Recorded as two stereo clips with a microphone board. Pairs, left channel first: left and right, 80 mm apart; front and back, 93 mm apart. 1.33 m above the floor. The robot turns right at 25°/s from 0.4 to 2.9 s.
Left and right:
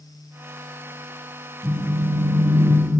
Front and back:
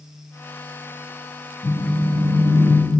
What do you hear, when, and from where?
1.6 s a phone buzzing: 35° right, 0.5 m; by 2.8 s 5° right, 0.5 m